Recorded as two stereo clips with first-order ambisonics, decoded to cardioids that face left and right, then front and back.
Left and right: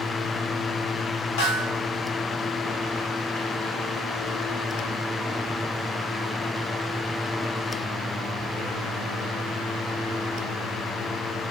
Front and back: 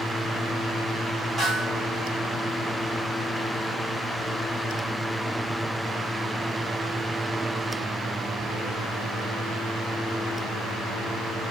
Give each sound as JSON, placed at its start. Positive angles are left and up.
{"t": 1.4, "sound": "a snare drum", "azimuth_deg": 95, "distance_m": 3.5}